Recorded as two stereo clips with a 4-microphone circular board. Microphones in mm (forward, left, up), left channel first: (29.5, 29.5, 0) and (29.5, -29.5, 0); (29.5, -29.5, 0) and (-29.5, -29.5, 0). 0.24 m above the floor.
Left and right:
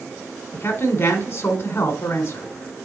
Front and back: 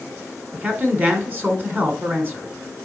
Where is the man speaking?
130° left, 1.8 m.